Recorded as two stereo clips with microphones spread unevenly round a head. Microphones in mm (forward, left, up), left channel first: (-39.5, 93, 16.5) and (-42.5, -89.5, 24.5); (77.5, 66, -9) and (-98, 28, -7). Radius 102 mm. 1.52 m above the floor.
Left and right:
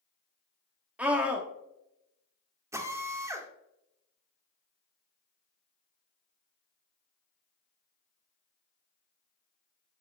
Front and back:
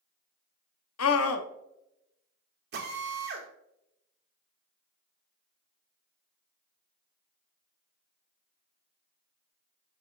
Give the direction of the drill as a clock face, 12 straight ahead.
5 o'clock.